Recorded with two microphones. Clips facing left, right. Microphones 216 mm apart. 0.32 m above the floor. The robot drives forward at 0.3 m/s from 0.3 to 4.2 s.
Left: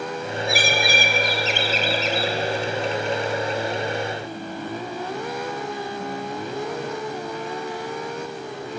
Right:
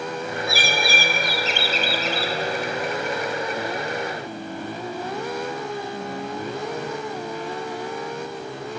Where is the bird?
15° left (ahead or behind), 1.1 m; by 2.3 s 25° left (ahead or behind), 0.8 m.